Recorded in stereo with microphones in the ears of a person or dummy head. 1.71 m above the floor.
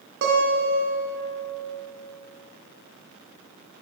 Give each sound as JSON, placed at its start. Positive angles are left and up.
{"t": 0.2, "sound": "a guitar", "side_deg": -65, "distance_m": 1.4}